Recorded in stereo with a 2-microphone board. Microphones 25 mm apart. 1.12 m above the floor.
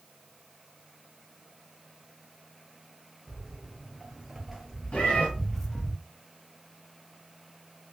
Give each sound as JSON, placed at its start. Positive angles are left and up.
{"t": 3.3, "sound": "footsteps", "side_deg": -10, "distance_m": 1.4}
{"t": 4.9, "sound": "a cat meowing", "side_deg": 50, "distance_m": 2.0}